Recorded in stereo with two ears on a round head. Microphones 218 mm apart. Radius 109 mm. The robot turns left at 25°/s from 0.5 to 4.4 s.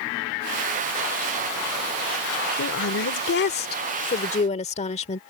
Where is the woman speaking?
80° left; by 5.2 s 35° left.